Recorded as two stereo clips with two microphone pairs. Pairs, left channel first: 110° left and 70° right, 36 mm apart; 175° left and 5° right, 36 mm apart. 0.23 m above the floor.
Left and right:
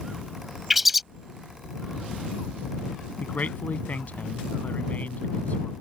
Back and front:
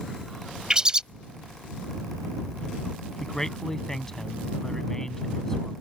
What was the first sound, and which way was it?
A bird, 10° left.